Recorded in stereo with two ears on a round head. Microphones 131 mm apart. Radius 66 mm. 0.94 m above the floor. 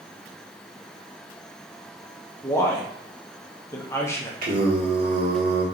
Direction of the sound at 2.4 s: 20° left (ahead or behind).